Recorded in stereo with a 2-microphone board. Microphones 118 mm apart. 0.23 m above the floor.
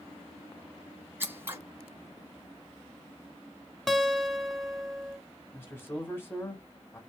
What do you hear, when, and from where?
1.2 s scissors: 20° right (ahead or behind), 1.1 m
3.9 s a guitar: centre (ahead or behind), 0.7 m
5.5 s a man speaking: 20° left (ahead or behind), 1.6 m